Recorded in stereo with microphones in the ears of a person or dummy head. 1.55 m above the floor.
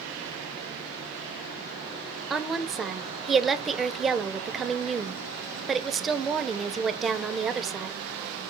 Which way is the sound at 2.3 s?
5° right (ahead or behind).